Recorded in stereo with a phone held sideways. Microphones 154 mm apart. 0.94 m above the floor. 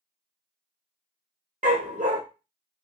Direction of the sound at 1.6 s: 60° right (ahead or behind).